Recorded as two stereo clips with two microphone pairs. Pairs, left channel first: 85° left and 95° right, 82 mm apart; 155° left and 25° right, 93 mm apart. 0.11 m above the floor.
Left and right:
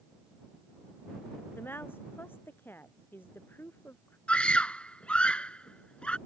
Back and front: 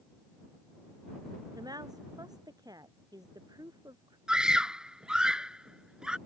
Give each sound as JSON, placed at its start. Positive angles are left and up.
{"t": 1.6, "sound": "a woman speaking", "azimuth_deg": 20}
{"t": 4.3, "sound": "a scream", "azimuth_deg": 40}